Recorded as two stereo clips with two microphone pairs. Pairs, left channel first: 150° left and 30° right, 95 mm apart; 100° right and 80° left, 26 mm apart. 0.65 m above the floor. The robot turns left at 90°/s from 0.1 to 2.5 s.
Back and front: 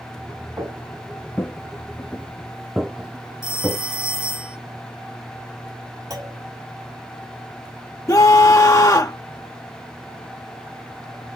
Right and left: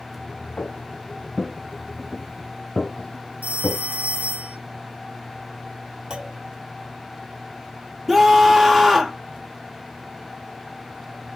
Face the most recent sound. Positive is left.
turn(degrees=160)